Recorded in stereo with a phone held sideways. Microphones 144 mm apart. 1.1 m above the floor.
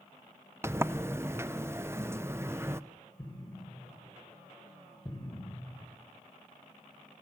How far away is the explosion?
About 4 m.